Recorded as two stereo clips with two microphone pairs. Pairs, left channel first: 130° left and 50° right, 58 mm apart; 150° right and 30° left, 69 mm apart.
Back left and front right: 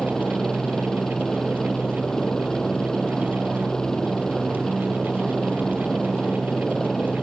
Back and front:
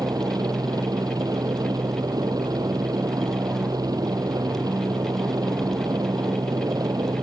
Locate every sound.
0.0 s a helicopter: 50° left